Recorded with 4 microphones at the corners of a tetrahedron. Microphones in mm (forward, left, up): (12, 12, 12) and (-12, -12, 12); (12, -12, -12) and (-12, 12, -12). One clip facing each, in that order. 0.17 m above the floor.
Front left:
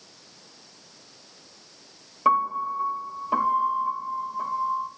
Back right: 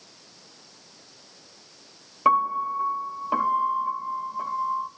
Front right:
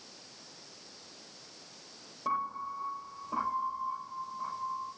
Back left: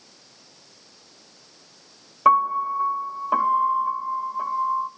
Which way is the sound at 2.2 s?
155° left.